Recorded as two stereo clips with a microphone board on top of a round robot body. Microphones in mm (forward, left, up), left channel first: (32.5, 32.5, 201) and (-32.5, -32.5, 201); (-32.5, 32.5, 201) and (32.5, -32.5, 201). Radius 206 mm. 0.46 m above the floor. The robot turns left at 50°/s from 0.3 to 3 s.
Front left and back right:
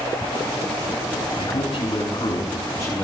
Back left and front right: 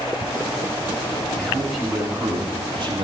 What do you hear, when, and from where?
1.4 s a man speaking: 60° left, 6.5 m; by 3.0 s 20° right, 6.5 m